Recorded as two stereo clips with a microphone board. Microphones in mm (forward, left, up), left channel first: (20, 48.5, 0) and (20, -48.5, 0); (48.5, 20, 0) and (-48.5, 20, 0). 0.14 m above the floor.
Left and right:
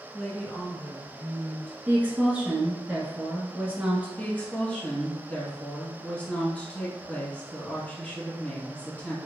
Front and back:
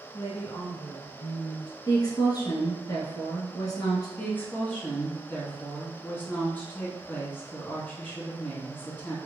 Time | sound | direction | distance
0.1 | a woman speaking | straight ahead | 1.7 m
1.9 | a woman speaking | 20° right | 1.6 m
4.2 | a woman speaking | 35° left | 1.3 m